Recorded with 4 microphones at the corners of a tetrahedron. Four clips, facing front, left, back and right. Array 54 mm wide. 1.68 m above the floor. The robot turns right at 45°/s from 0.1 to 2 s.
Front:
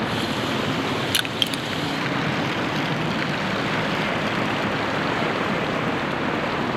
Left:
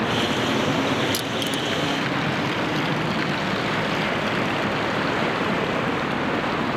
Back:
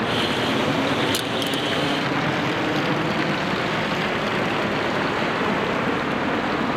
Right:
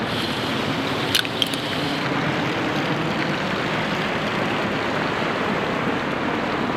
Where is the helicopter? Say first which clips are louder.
Left 2 dB, back 3 dB; 150° left; by 6.8 s 155° right.